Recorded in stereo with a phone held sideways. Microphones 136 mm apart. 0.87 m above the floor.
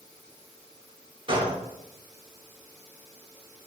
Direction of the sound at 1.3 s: 40° right (ahead or behind).